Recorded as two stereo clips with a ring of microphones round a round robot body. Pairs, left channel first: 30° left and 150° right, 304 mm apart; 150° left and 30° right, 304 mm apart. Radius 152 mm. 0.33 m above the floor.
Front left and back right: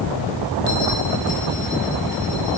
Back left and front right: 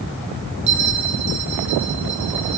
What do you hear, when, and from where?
0.7 s a bell: 25° left, 7 m